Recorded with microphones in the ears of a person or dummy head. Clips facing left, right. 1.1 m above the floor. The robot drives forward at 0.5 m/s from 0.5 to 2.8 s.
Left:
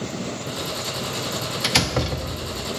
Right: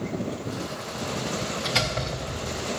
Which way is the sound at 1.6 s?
85° left.